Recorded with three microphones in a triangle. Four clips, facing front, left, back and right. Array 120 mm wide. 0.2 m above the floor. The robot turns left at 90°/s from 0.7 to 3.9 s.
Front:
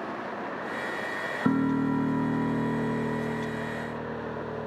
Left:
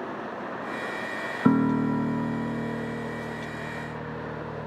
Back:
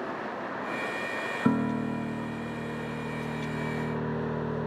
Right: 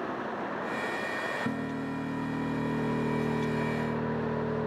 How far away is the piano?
About 1.4 m.